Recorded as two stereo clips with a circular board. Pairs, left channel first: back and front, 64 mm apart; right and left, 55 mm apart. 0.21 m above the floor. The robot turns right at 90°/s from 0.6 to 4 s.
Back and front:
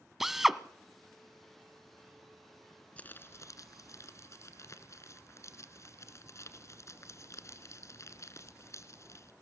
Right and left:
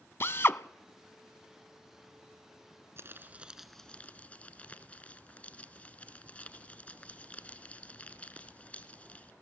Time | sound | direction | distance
0.2 | a drill | 80° right | 0.7 m
3.0 | crumpling | 115° left | 1.7 m